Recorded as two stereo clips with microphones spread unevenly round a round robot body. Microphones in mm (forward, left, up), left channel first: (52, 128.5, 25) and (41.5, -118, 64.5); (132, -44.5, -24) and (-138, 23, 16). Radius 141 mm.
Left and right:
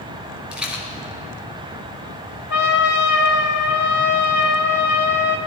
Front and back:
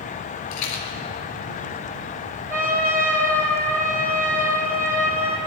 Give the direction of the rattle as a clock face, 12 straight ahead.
12 o'clock.